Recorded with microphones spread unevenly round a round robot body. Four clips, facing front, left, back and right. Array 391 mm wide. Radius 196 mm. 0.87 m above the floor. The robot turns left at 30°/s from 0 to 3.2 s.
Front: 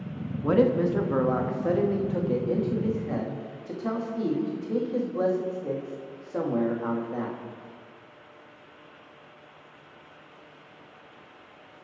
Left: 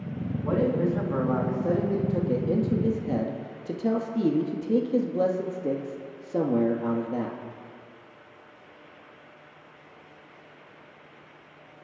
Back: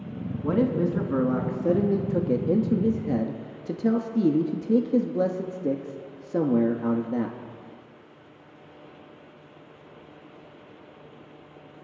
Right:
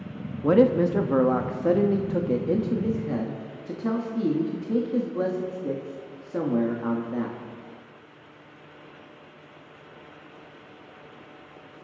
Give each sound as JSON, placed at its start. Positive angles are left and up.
{"t": 0.4, "sound": "a man speaking", "azimuth_deg": -100, "distance_m": 1.4}